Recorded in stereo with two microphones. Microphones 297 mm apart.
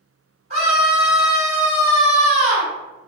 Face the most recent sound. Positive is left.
turn(degrees=-25)  # may be behind; listen again after turning